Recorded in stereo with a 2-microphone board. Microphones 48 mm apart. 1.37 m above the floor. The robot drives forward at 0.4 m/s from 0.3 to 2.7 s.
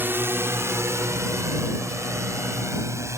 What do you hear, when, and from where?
0.0 s a drone: 45° right (ahead or behind); by 3.2 s 75° right (ahead or behind)